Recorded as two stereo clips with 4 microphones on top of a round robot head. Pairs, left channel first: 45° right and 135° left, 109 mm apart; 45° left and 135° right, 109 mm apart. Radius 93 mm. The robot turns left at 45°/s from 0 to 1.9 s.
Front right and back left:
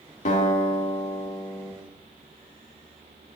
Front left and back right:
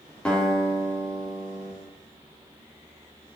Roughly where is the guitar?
Ahead right.